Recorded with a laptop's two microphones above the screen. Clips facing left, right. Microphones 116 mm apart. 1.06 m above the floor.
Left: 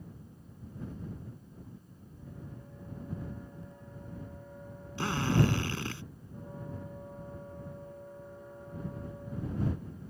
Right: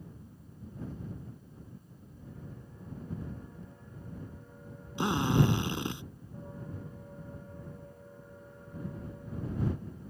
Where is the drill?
20° right (ahead or behind).